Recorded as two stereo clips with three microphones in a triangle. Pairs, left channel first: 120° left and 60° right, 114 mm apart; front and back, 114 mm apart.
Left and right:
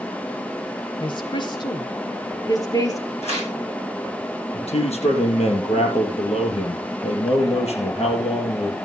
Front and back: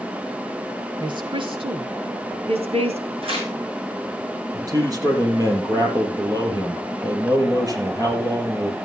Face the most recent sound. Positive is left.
turn(degrees=125)